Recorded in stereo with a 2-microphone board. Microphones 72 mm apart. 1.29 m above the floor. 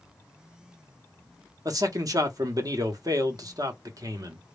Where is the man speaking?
55° right (ahead or behind), 0.8 m.